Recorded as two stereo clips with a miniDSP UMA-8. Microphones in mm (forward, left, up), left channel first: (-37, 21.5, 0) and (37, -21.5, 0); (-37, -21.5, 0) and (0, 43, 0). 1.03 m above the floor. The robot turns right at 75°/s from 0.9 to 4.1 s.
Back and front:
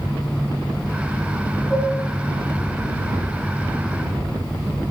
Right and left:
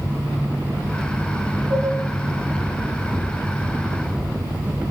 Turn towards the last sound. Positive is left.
turn(degrees=-100)